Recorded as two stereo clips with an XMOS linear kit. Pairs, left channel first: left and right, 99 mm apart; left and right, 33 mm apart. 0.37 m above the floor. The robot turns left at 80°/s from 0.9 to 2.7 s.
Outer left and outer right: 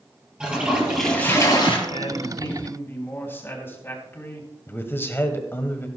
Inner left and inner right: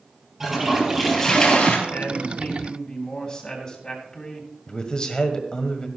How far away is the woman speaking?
About 3 m.